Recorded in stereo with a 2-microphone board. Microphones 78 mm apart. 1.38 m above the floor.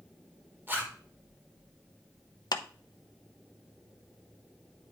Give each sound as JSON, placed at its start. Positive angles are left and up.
{"t": 0.7, "sound": "a zipper", "side_deg": -30, "distance_m": 1.7}
{"t": 2.5, "sound": "a clap", "side_deg": 65, "distance_m": 0.6}